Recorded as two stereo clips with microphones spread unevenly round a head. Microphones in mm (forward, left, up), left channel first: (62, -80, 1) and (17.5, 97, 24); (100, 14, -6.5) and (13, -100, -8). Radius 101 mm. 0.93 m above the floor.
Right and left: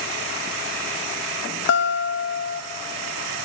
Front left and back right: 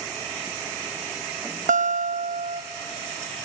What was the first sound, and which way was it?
A guitar, 95° right.